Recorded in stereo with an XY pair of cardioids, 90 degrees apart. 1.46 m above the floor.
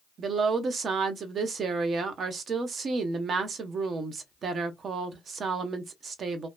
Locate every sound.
0.2 s a woman speaking: 55° right, 0.9 m